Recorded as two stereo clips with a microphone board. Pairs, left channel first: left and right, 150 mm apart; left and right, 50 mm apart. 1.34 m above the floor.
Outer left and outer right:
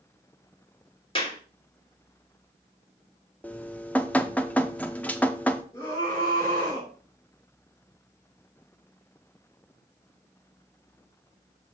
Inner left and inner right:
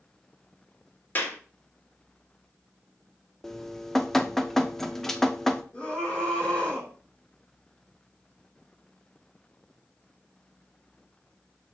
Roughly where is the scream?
Left.